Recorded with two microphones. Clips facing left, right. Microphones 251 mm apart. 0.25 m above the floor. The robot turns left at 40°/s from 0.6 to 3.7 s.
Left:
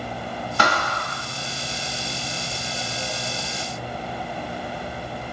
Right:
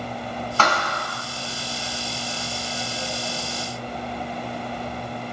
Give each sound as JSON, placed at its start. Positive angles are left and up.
{"t": 0.6, "sound": "a thud", "side_deg": 15, "distance_m": 0.6}